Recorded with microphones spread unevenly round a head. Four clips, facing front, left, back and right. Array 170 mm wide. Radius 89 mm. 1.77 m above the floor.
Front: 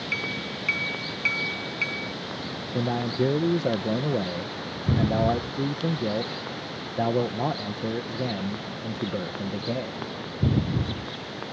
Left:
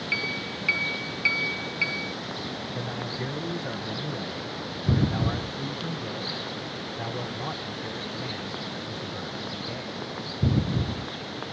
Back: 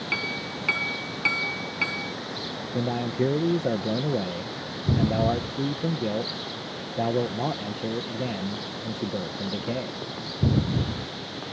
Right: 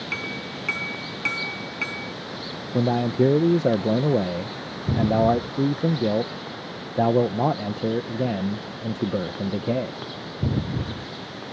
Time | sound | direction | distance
0.1 | a clink | 160° right | ?
2.7 | a man speaking | 90° right | ?